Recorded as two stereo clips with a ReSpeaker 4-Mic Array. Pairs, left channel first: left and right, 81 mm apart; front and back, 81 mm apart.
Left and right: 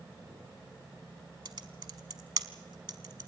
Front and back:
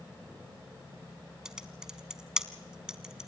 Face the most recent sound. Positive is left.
turn(degrees=-100)